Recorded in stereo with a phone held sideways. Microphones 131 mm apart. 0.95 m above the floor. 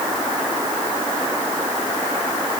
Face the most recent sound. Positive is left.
No sound to turn to.